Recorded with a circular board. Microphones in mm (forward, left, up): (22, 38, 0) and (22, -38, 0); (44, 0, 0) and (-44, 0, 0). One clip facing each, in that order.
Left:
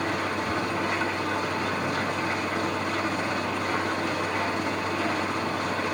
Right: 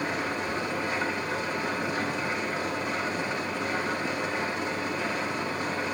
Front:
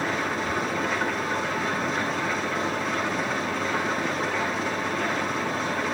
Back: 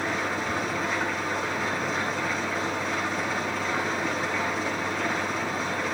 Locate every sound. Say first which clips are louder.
0.0 s an engine running: left 2 dB, front 1 dB; 90° left, 5.5 m